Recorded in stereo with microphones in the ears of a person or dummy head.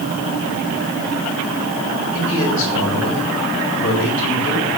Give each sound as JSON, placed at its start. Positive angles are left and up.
{"t": 2.1, "sound": "a man speaking", "side_deg": 70, "distance_m": 7.0}